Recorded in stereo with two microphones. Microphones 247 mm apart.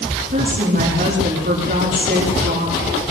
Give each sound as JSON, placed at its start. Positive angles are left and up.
{"t": 0.3, "sound": "a woman speaking", "side_deg": -40, "distance_m": 8.0}